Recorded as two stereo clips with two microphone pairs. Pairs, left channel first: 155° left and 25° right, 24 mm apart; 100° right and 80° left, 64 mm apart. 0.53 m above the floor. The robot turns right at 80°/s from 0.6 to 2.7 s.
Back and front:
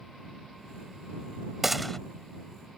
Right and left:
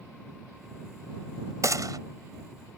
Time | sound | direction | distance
1.6 | a gunshot | 50° left | ?